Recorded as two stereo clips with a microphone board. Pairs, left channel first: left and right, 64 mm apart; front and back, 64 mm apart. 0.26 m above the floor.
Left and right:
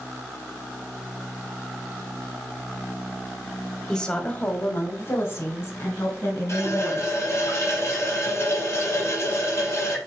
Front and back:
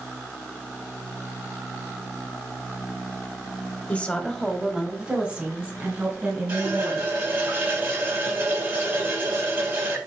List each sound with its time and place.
3.9 s a woman speaking: 20° left, 1.3 m; by 7.2 s 130° left, 4 m
6.5 s a running tap: 135° left, 5 m